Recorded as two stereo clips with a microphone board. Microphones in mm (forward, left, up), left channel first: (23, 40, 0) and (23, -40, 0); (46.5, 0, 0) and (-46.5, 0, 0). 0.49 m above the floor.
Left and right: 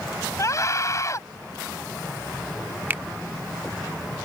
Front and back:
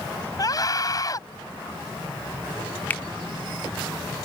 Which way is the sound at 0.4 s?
45° left.